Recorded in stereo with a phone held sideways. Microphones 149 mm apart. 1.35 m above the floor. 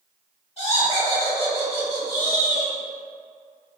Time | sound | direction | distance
0.6 | laughter | 40° left (ahead or behind) | 2.0 m